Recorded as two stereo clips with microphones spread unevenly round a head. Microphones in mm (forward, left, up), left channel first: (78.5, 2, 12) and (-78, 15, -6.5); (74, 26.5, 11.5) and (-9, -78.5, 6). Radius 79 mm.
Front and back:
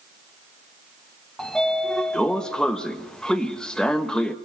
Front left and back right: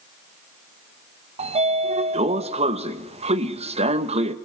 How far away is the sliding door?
About 1.4 m.